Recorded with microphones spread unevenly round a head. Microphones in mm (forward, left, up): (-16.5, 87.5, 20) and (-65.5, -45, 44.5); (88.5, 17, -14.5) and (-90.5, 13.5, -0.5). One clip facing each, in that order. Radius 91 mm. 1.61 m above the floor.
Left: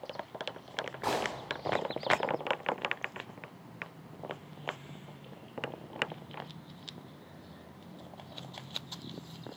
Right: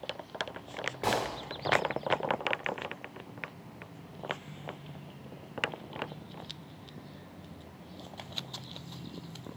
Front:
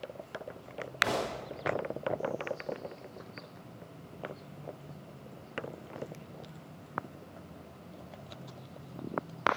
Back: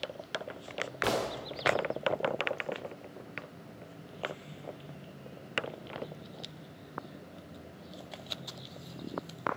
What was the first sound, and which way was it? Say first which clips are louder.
A gunshot: right 2 dB, back 2 dB; 170° right.